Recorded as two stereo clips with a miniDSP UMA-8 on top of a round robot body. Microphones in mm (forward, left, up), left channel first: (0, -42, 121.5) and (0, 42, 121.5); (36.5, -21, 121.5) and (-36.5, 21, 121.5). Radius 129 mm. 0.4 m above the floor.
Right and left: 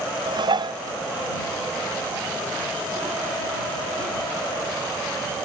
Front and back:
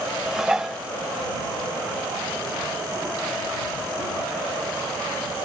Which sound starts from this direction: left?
Dishes clattering, at 0.3 s.